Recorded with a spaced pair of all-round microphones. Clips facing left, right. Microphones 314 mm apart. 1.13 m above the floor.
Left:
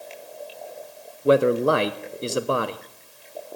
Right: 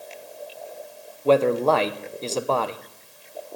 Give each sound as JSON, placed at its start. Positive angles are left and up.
{"t": 1.2, "sound": "a man speaking", "side_deg": 15, "distance_m": 0.7}